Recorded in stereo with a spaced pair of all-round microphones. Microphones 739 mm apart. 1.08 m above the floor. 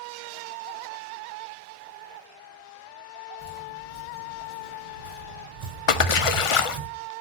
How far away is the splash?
About 0.6 m.